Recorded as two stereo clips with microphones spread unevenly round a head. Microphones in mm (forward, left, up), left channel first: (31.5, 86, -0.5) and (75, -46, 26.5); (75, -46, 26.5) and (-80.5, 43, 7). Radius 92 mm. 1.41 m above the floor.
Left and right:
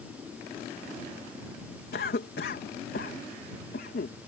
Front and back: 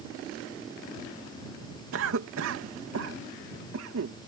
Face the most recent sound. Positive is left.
turn(degrees=140)